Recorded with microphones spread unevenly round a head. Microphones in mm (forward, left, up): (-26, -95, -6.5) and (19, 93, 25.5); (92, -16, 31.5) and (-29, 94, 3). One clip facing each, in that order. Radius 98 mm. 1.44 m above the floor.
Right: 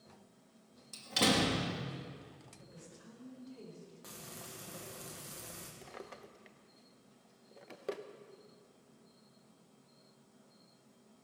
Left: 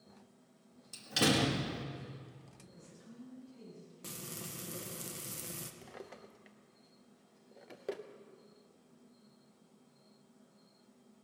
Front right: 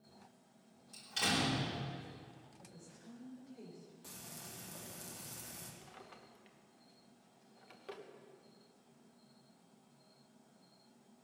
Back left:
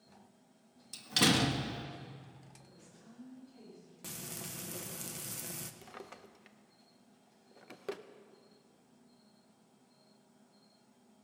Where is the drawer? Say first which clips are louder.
Even, back left 6 dB; 150° left, 0.6 m.